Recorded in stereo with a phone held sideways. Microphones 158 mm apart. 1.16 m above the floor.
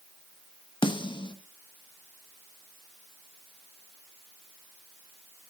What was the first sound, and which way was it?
A snare drum, 30° left (ahead or behind).